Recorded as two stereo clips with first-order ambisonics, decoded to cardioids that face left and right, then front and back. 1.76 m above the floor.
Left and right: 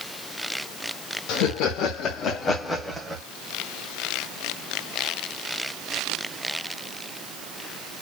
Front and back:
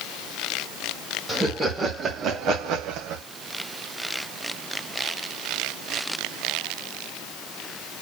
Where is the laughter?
95° left, 1.2 m; by 3.2 s 165° right, 0.9 m.